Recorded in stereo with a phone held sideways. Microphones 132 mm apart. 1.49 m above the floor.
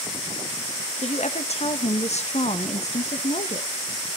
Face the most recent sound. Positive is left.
turn(degrees=55)  # may be behind; listen again after turning